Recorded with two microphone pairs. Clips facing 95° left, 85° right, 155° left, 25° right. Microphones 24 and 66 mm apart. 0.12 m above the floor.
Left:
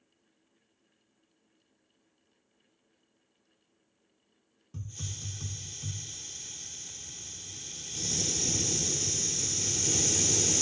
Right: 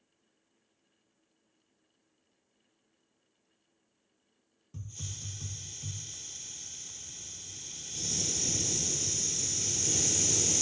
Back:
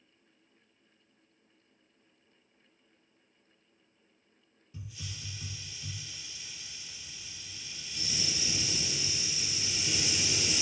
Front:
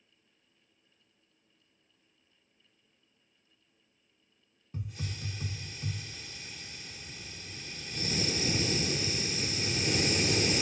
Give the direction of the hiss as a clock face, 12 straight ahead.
11 o'clock.